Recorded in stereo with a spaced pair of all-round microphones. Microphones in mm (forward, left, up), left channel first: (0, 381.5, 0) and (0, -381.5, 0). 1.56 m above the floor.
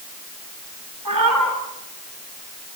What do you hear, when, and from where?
1.1 s a cat meowing: 25° right (ahead or behind), 6.5 m